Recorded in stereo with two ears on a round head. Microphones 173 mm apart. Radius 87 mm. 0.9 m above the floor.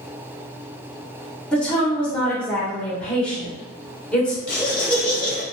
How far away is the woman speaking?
About 1.0 m.